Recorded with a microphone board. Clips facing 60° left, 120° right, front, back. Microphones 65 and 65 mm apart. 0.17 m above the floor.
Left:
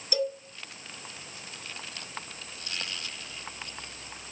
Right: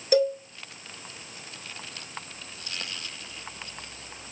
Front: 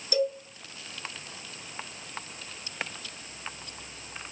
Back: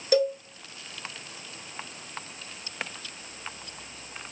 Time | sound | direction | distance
0.1 | a cowbell | 150° right | 0.6 m